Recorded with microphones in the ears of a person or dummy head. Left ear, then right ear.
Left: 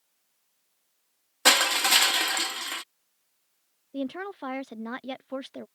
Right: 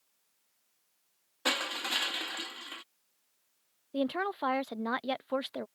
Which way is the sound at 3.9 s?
30° right (ahead or behind).